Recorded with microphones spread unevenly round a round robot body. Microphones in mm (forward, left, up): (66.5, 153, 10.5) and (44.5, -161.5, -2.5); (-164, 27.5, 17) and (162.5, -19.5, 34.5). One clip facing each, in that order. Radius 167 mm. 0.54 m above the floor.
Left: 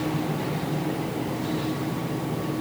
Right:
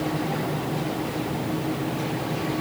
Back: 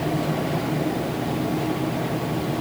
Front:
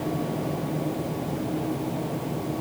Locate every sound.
Only background noise.